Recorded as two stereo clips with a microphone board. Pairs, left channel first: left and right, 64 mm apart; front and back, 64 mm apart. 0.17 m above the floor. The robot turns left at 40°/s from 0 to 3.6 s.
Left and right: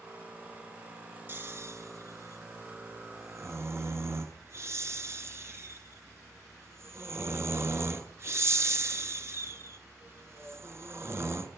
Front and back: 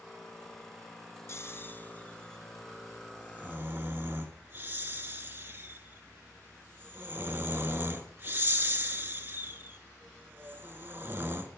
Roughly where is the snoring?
Ahead right.